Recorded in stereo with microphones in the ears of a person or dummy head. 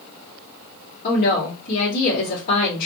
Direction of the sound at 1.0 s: 50° left (ahead or behind).